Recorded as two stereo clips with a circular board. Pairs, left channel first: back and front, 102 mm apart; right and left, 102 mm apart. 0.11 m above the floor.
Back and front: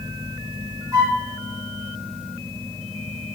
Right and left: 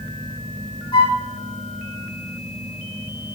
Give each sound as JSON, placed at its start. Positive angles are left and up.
{"t": 0.9, "sound": "a flute", "azimuth_deg": -55, "distance_m": 4.5}